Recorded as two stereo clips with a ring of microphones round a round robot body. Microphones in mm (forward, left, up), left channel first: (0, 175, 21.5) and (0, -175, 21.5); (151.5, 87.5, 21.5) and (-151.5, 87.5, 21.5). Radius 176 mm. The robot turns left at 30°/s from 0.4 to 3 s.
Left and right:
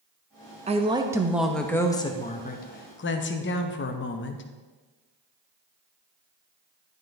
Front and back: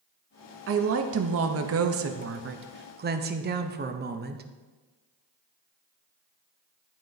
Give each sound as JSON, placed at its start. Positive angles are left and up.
{"t": 0.7, "sound": "a woman speaking", "azimuth_deg": -155, "distance_m": 0.7}